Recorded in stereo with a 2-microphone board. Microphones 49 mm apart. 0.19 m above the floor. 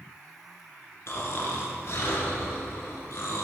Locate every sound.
1.1 s snoring: 65° left (ahead or behind), 1.9 m